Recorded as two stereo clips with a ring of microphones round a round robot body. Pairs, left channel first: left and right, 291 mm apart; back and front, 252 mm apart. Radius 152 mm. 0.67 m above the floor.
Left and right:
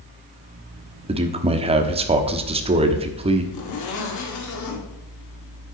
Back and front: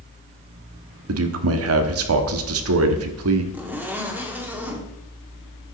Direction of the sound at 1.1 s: 20° right.